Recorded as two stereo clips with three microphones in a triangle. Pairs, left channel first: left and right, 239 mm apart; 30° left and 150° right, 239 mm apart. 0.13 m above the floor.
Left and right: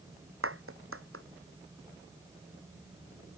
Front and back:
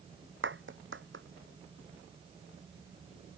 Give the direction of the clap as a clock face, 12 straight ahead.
4 o'clock.